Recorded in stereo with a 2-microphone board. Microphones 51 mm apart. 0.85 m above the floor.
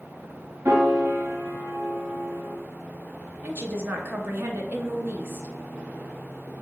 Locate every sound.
0.7 s a piano: 55° right (ahead or behind), 0.9 m
3.4 s a woman speaking: 45° right (ahead or behind), 0.7 m